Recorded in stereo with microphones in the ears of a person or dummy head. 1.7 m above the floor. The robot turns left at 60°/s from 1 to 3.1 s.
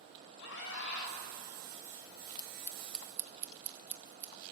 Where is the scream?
70° left (ahead or behind), 6 m; by 1.2 s 60° left (ahead or behind), 6 m.